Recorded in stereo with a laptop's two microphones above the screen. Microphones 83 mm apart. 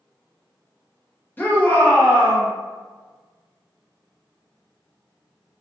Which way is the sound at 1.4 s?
20° left (ahead or behind).